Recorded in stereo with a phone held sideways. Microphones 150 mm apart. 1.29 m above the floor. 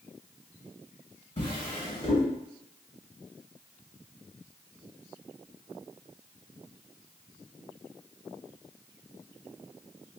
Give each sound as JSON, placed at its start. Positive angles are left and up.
{"t": 1.4, "sound": "a drawer", "side_deg": 40, "distance_m": 1.3}